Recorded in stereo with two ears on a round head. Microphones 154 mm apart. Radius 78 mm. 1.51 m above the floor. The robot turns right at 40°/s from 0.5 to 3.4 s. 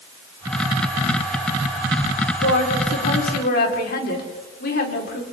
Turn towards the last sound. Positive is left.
turn(degrees=120)